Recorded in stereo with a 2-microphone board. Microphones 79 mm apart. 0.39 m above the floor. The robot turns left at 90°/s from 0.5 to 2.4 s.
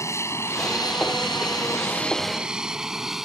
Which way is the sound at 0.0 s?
35° left (ahead or behind).